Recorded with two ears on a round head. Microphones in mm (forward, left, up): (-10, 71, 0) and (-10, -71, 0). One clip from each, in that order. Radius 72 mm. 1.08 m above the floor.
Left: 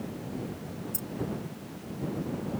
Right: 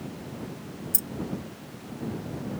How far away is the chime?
I don't hear a chime.